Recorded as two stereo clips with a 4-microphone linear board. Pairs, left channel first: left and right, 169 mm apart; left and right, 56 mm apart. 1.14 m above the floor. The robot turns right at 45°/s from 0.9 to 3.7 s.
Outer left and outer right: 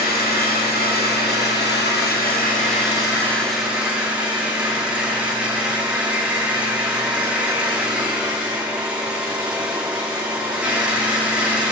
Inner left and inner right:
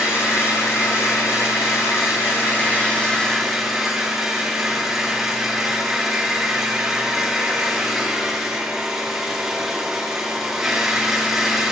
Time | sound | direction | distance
0.0 | an engine running | 60° left | 2 m